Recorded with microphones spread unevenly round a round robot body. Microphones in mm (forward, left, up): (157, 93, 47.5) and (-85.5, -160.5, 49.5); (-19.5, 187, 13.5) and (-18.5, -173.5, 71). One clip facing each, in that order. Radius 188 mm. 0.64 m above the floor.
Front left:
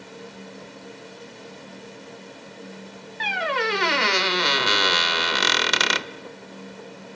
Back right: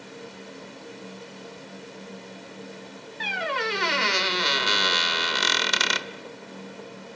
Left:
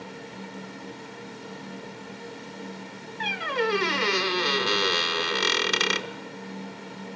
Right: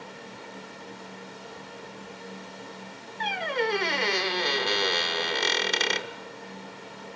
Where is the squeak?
20° left, 1.0 m.